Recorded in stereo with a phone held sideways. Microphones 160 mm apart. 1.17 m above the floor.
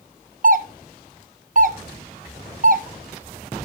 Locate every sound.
0.4 s a doorbell: 55° right (ahead or behind), 0.8 m